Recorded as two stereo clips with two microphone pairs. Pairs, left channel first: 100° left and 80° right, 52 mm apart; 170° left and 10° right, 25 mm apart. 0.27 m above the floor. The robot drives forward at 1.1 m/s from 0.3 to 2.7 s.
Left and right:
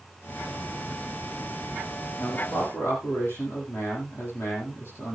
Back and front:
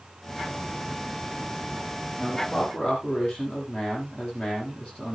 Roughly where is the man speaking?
Behind left.